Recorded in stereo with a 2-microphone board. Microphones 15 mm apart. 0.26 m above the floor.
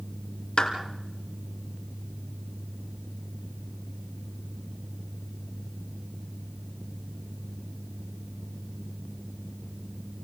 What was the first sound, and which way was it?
A clap, 70° left (ahead or behind).